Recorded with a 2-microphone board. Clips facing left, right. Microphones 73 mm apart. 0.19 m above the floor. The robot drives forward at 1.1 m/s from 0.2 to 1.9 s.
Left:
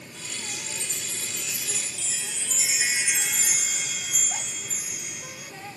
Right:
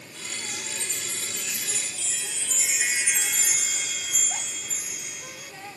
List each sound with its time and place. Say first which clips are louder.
0.5 s a chime: right 1 dB; centre (ahead or behind); by 5.5 s 5° left (ahead or behind)